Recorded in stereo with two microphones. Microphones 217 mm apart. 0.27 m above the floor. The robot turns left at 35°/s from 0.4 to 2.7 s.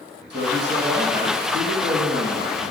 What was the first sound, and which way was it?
A man speaking, 60° right.